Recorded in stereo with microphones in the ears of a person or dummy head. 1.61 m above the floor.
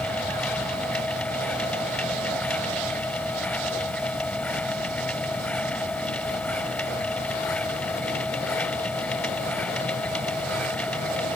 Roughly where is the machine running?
Centre.